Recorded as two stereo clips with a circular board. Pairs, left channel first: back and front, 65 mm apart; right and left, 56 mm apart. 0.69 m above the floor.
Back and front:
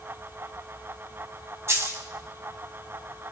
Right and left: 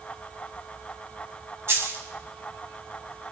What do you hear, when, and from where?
1.7 s a dropped coin: 45° left, 1.9 m